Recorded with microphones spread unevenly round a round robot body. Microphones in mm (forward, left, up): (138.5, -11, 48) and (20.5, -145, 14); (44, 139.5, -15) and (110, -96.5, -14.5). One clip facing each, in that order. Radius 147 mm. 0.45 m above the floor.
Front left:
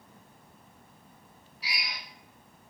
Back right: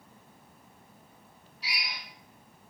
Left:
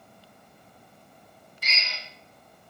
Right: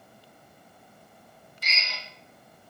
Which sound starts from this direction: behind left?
A drill, at 1.6 s.